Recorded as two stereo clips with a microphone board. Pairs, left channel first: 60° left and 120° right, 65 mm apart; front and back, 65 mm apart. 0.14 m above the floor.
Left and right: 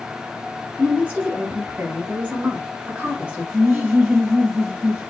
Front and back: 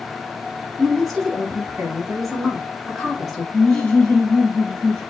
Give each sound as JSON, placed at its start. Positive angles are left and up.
{"t": 0.8, "sound": "a woman speaking", "azimuth_deg": -90, "distance_m": 1.5}
{"t": 3.5, "sound": "laughter", "azimuth_deg": -55, "distance_m": 1.2}